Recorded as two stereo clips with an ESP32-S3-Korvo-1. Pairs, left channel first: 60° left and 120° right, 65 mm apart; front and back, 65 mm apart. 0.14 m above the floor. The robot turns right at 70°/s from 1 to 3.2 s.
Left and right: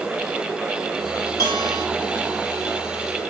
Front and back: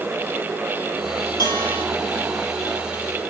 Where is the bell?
20° left, 5 m; by 1.9 s 50° left, 5 m.